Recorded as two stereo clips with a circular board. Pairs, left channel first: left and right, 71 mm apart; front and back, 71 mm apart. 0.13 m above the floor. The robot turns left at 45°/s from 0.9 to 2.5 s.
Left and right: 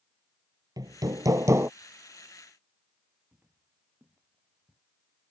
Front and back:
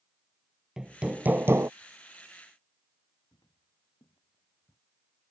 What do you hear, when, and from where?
0.8 s hammering: 100° right; by 1.7 s 140° right
3.3 s footsteps: 15° right; by 4.8 s 30° right